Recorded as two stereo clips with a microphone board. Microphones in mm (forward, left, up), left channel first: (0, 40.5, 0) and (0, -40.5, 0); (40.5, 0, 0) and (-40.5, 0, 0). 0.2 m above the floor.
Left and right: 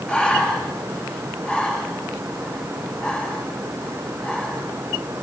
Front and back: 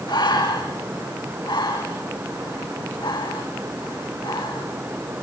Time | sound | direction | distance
0.1 | breathing | 10° left | 7 m